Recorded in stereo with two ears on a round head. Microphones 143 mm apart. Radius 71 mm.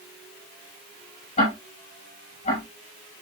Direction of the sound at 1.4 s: 40° left (ahead or behind).